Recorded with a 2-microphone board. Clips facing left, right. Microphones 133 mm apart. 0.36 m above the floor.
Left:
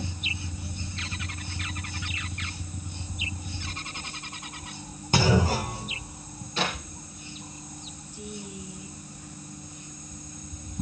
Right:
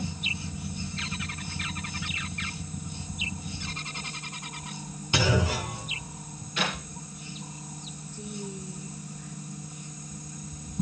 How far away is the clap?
About 7.5 m.